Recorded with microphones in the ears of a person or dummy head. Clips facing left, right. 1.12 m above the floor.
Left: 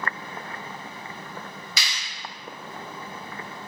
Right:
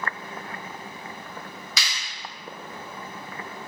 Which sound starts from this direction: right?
A clap, at 1.8 s.